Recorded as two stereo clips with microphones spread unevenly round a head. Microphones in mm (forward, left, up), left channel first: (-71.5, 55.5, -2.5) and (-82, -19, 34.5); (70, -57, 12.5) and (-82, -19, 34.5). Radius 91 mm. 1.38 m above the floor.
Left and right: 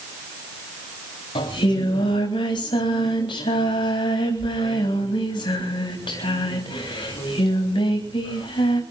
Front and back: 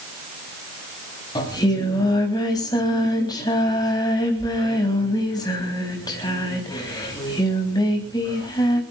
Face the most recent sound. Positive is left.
turn(degrees=55)